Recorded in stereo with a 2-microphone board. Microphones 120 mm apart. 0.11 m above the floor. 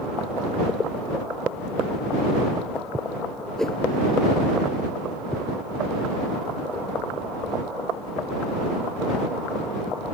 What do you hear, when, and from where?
3.6 s a whoosh: 5° left (ahead or behind)